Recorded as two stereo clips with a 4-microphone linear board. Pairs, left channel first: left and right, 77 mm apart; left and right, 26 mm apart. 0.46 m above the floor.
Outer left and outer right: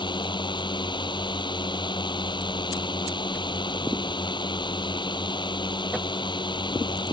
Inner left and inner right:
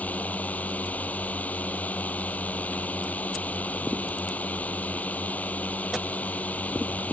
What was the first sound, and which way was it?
A drone, 85° left.